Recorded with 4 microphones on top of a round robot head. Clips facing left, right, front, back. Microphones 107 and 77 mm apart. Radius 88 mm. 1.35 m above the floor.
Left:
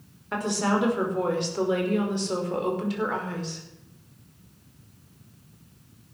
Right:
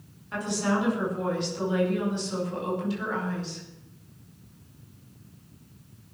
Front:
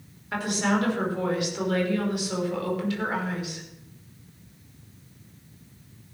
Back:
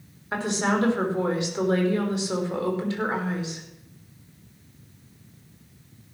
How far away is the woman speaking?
About 5.5 m.